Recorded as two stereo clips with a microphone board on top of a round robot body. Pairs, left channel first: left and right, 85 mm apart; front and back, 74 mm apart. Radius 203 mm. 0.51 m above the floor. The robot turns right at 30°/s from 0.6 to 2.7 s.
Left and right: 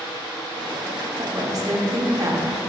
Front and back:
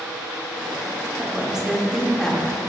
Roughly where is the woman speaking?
Right.